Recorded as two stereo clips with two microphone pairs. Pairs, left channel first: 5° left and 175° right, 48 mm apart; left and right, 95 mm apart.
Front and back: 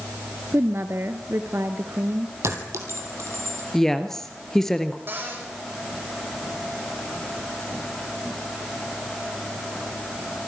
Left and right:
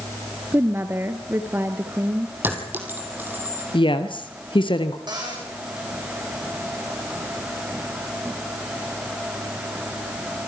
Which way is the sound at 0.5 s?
150° right.